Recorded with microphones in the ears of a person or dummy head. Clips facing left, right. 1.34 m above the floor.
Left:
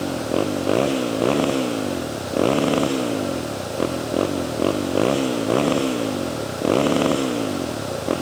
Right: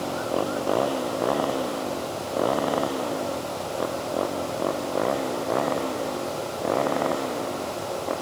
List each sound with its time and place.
0.0 s a motorcycle: 35° left (ahead or behind); by 8.2 s 50° left (ahead or behind)